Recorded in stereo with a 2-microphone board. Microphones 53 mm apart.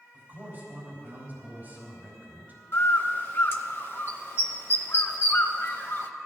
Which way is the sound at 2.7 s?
45° left (ahead or behind).